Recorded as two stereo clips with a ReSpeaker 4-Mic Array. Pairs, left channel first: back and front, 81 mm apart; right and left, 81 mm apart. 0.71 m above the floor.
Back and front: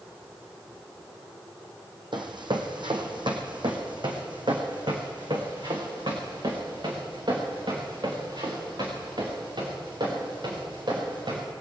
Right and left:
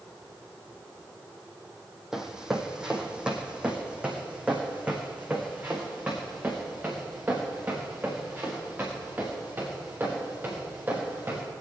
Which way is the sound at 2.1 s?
5° left.